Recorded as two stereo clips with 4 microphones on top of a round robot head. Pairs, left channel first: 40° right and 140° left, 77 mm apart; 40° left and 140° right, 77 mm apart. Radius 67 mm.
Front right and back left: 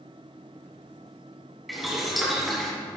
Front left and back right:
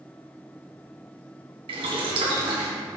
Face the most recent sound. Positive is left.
turn(degrees=-130)